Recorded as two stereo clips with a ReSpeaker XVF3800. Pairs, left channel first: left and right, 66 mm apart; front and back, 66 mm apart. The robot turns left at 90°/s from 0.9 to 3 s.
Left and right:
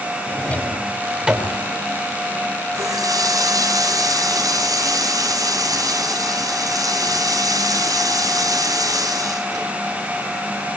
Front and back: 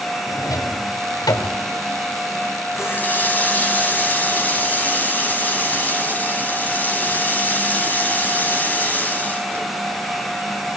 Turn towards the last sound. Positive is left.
turn(degrees=-65)